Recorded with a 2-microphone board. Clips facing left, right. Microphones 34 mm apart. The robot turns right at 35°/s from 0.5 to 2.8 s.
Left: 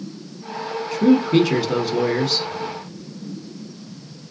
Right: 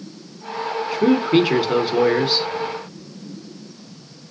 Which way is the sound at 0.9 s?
20° right (ahead or behind).